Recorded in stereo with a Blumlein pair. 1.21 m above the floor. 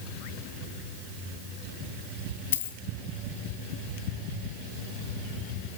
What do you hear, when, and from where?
2.5 s a dropped coin: 60° left, 3 m